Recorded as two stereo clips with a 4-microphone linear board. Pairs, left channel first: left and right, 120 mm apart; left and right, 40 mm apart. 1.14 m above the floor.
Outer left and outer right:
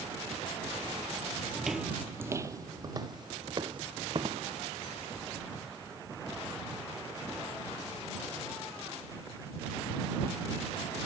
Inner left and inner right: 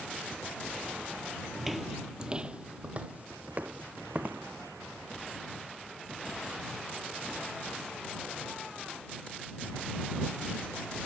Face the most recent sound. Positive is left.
turn(degrees=-45)  # may be behind; listen again after turning